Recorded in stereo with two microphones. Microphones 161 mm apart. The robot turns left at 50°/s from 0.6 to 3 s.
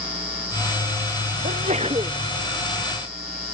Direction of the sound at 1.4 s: 120° right.